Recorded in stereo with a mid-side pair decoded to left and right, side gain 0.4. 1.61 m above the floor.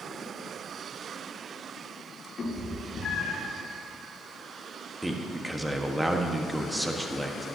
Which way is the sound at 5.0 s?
5° right.